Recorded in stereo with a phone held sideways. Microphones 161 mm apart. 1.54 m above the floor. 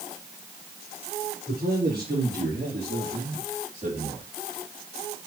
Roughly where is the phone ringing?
I don't hear a phone ringing.